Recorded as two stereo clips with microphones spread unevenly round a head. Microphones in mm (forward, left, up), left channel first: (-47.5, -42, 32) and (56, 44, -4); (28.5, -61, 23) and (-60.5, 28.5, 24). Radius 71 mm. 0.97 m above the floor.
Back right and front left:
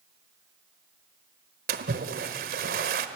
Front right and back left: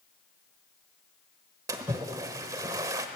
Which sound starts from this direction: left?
A splash, at 1.7 s.